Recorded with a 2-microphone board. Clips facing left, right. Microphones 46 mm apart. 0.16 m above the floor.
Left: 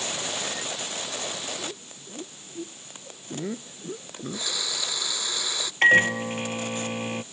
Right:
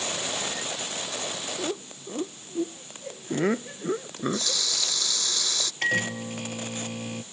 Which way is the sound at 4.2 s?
15° left (ahead or behind).